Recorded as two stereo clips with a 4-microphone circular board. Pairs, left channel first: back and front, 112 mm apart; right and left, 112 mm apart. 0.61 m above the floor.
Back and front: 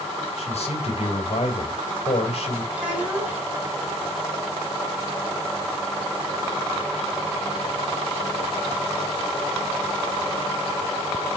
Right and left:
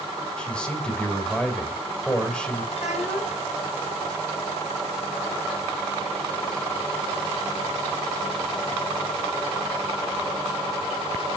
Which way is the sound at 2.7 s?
80° right.